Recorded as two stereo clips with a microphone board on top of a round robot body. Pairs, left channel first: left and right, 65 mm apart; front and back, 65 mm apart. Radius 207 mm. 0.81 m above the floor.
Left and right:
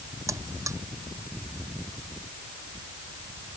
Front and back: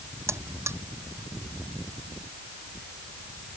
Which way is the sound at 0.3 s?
135° right.